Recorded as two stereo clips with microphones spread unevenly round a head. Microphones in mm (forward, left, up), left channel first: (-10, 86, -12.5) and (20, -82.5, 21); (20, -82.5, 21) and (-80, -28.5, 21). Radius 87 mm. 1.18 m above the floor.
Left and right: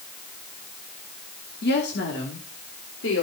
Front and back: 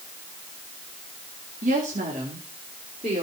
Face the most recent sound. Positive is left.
turn(degrees=95)